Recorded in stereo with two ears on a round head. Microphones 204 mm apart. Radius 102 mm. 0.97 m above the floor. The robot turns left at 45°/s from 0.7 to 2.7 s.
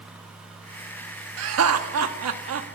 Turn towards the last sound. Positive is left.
turn(degrees=-120)